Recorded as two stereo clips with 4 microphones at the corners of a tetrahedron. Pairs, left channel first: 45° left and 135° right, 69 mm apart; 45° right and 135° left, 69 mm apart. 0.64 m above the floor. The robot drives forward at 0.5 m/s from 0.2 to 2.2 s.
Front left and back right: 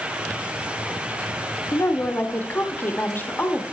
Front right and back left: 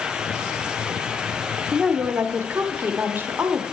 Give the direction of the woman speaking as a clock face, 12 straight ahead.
10 o'clock.